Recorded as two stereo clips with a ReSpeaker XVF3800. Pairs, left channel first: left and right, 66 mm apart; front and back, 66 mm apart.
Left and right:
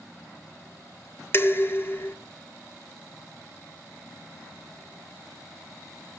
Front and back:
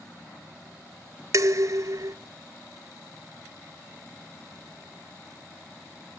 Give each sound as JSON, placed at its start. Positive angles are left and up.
{"t": 1.3, "sound": "dishes clattering", "azimuth_deg": 140, "distance_m": 0.8}